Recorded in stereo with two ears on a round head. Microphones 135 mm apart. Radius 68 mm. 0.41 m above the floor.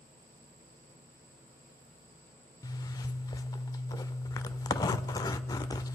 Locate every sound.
2.6 s a zipper: 25° left (ahead or behind), 0.5 m